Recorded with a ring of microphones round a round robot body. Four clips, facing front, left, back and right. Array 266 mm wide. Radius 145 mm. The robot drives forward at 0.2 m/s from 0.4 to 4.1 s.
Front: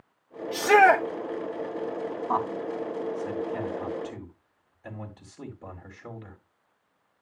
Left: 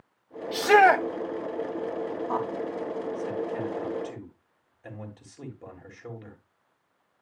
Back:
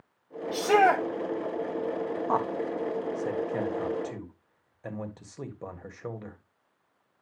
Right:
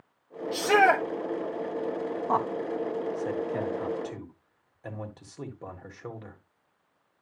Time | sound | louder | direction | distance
0.5 | a shout | left 3 dB, front 3 dB | 45° left | 1.2 m
2.3 | a man speaking | right 5 dB, front 1 dB | 145° right | 1.6 m